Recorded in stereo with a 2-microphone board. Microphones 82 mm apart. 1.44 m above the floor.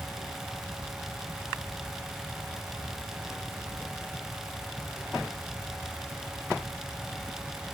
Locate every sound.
Only background noise.